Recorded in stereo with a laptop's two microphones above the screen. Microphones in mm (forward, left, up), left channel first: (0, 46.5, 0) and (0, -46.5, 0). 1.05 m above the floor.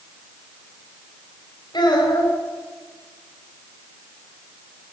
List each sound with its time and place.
1.7 s a child speaking: 50° left (ahead or behind), 3.5 m